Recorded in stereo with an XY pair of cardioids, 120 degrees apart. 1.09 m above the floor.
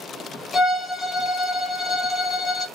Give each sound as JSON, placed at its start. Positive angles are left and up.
{"t": 0.5, "sound": "a violin", "azimuth_deg": 20, "distance_m": 1.1}